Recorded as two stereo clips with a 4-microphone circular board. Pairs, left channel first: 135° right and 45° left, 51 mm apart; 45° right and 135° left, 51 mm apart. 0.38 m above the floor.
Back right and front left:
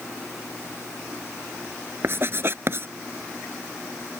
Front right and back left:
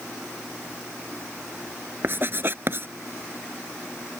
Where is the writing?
90° left.